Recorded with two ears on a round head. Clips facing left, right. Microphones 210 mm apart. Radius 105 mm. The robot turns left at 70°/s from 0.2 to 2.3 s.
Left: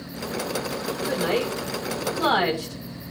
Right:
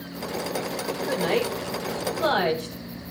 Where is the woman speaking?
Centre (ahead or behind), 5.5 m; by 2.8 s 80° left, 5.5 m.